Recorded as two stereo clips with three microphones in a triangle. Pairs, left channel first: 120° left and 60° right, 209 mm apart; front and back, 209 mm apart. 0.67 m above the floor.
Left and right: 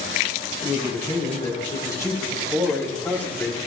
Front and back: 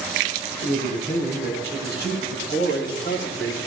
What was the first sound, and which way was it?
A man speaking, 55° left.